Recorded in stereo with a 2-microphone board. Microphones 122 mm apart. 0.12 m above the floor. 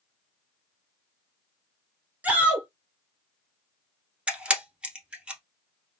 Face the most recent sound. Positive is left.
turn(degrees=-10)  # may be behind; listen again after turning